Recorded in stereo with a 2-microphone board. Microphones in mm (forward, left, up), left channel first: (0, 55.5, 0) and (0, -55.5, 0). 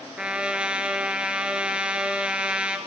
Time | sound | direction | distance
0.2 | a trumpet | 10° right (ahead or behind) | 1.4 m